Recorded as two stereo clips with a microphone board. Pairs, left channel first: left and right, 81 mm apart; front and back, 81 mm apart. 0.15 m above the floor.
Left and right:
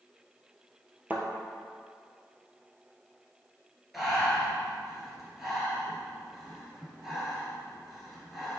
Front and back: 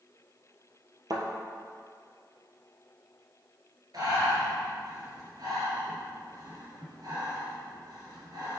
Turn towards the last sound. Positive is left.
turn(degrees=-175)